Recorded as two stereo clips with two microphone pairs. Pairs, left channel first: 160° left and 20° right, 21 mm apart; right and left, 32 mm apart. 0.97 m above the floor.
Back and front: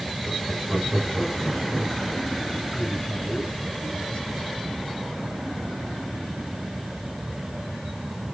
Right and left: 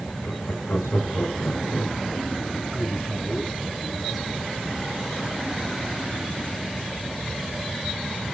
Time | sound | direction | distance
0.2 | laughter | 125° right | 4.5 m
2.7 | a man speaking | straight behind | 8.5 m